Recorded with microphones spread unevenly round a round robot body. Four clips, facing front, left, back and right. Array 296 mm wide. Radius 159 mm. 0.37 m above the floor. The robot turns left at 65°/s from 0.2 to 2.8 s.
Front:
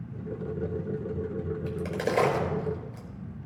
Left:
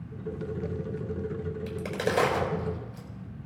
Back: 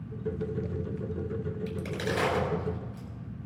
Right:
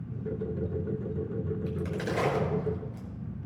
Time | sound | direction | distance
1.7 | a crack | 70° left | 5 m